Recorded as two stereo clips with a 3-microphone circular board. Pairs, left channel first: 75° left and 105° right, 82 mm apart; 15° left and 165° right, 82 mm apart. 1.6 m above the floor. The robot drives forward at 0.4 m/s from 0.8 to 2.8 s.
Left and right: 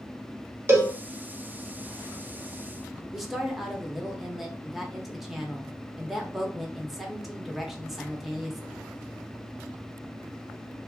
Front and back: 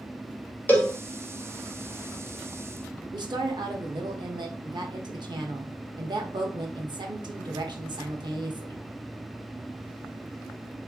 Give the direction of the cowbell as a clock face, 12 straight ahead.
2 o'clock.